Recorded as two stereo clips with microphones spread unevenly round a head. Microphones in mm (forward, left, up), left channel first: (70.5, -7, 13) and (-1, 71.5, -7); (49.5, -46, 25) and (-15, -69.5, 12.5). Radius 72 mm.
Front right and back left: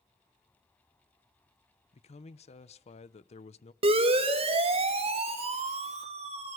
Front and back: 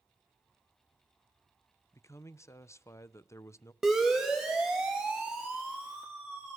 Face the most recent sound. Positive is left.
turn(degrees=125)